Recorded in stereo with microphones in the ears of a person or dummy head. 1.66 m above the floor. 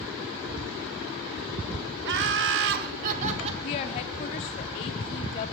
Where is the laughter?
55° right (ahead or behind), 1.0 m; by 3.5 s 35° right (ahead or behind), 1.2 m.